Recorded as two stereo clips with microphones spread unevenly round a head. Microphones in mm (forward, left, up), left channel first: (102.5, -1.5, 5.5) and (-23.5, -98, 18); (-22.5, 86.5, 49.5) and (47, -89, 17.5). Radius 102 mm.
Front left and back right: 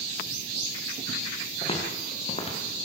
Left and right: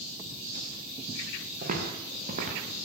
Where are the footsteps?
15° right, 5.5 m.